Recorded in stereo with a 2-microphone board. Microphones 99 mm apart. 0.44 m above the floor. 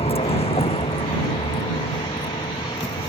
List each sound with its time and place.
0.0 s a vehicle: 90° left; by 3.1 s 70° left (ahead or behind)